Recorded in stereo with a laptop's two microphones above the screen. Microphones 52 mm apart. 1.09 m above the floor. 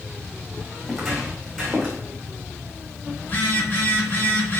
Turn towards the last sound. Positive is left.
turn(degrees=40)  # may be behind; listen again after turning